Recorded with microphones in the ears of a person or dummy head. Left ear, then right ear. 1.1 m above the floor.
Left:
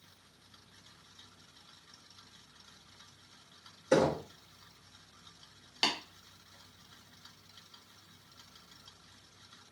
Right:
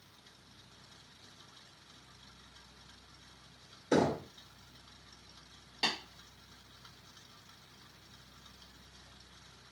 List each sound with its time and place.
3.9 s knocking: centre (ahead or behind), 0.6 m
5.8 s tapping: 25° left (ahead or behind), 1.3 m